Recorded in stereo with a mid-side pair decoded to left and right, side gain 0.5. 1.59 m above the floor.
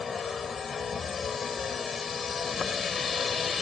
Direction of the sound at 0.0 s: 35° left.